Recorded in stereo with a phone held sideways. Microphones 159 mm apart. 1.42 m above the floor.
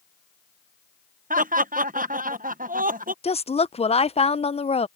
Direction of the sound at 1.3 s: 60° right (ahead or behind).